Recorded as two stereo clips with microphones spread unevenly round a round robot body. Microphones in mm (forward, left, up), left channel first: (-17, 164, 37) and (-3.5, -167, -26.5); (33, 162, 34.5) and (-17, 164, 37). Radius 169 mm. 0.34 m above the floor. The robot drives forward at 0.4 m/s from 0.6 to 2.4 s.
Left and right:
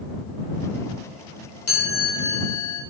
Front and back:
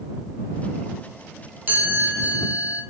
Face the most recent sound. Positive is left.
turn(degrees=150)